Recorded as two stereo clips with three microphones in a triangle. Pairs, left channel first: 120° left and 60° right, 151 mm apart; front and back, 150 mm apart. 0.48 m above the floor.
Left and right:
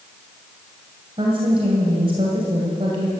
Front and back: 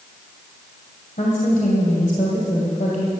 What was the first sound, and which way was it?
A woman speaking, 15° right.